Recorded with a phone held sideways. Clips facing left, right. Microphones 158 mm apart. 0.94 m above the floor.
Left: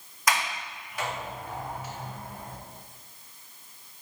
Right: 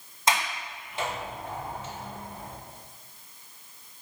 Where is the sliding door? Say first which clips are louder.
Right 1 dB; 25° right (ahead or behind), 1.3 m.